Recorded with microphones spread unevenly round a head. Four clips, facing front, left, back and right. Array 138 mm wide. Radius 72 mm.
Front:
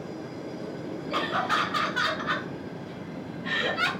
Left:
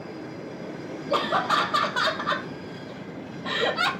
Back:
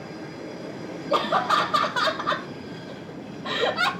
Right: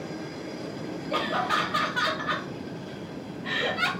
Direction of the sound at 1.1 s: 155° left.